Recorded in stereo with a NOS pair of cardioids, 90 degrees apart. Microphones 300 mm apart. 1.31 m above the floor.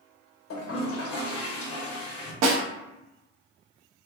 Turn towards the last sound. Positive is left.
turn(degrees=-60)